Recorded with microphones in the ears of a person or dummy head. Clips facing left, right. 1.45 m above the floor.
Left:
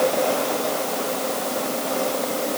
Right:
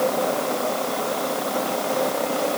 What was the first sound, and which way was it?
Only background noise.